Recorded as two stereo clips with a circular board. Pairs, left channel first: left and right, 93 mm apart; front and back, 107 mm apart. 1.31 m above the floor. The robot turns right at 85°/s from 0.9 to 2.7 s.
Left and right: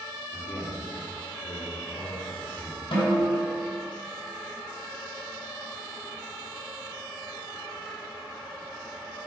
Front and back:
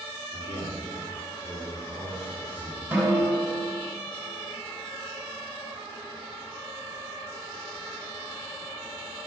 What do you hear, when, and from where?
0.3 s a man speaking: 20° left, 4 m; by 2.9 s 175° left, 4 m
2.9 s a snare drum: 110° left, 5 m